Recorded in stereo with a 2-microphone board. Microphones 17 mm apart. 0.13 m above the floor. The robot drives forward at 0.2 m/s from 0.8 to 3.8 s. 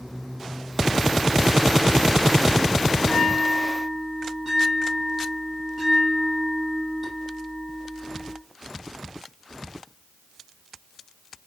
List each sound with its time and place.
3.0 s a bell: 5° right (ahead or behind), 3 m